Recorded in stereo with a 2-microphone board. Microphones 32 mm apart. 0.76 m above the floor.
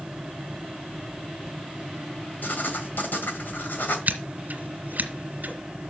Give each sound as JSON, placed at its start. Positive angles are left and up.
{"t": 2.4, "sound": "writing", "side_deg": 75, "distance_m": 2.0}
{"t": 4.1, "sound": "scissors", "side_deg": -60, "distance_m": 1.9}